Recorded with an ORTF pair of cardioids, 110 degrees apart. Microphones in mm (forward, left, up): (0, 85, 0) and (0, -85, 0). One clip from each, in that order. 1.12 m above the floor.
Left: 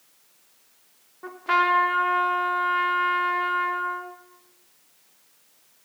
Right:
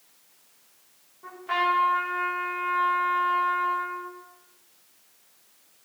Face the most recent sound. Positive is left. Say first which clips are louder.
# left 4 dB
turn(degrees=50)